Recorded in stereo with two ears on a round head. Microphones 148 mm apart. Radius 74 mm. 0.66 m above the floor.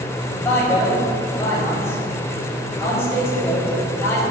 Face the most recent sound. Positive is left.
turn(degrees=15)  # may be behind; listen again after turning